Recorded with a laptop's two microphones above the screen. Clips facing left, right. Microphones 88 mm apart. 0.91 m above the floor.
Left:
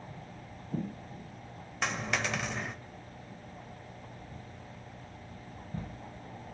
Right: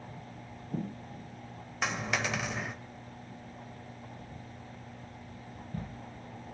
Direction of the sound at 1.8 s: 5° right (ahead or behind).